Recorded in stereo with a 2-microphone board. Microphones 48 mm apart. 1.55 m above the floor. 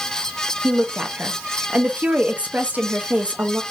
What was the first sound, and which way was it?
A woman speaking, 25° right (ahead or behind).